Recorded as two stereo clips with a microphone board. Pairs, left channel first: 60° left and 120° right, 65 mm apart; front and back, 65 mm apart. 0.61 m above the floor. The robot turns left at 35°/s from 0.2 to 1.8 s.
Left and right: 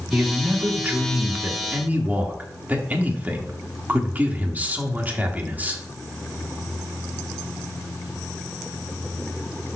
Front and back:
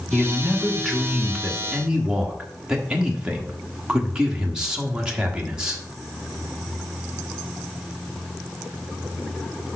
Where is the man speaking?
65° right, 1.2 m; by 5.8 s 120° right, 1.2 m.